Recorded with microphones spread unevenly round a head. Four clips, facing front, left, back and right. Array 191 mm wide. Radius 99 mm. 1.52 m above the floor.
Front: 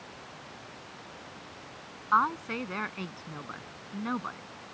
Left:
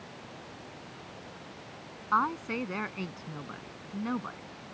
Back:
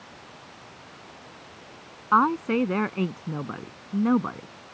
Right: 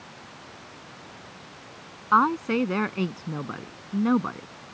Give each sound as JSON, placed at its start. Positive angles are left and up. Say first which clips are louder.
{"t": 2.1, "sound": "a woman speaking", "louder": "right 8 dB, back 6 dB", "azimuth_deg": -140}